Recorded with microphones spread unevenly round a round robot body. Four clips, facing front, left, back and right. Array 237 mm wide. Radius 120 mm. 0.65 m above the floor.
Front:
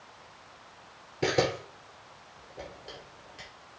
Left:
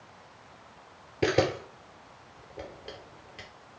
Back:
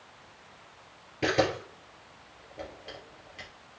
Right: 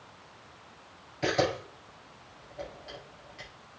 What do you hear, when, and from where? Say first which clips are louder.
1.2 s a camera shutter: left 2 dB, back 1 dB; 85° left, 3 m